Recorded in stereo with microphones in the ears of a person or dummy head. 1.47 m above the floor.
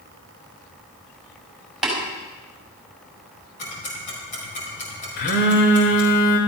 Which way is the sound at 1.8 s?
Centre (ahead or behind).